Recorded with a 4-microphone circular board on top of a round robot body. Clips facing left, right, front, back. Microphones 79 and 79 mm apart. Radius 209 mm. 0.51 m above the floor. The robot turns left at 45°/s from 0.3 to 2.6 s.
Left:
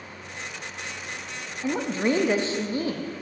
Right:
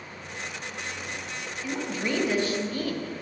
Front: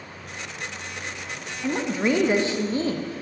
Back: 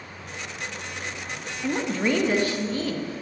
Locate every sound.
1.6 s a woman speaking: 85° left, 0.7 m; by 3.2 s 40° left, 0.7 m